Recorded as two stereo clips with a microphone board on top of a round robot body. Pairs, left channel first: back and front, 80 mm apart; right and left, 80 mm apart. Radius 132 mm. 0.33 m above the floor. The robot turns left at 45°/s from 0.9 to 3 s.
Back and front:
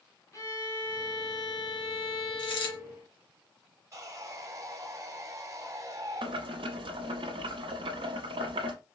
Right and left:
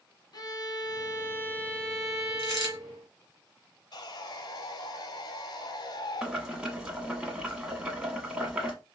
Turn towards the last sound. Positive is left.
turn(degrees=10)